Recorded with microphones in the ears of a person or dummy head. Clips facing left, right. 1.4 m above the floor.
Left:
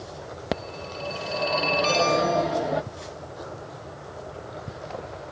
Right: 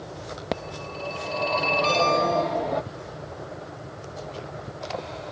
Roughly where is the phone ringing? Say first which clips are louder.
Left 1 dB; centre.